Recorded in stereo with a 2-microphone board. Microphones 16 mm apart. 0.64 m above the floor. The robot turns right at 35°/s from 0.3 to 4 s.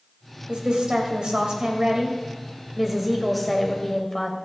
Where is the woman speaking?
100° right, 2.5 m; by 4.4 s 25° left, 2.5 m.